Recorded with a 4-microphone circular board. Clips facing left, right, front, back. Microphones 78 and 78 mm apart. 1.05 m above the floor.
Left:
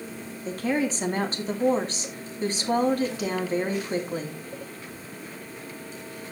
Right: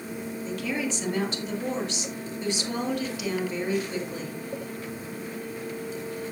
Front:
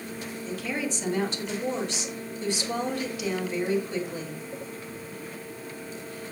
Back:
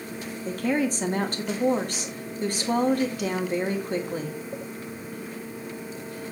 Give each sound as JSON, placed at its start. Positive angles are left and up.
{"t": 0.5, "sound": "a woman speaking", "azimuth_deg": 140, "distance_m": 2.5}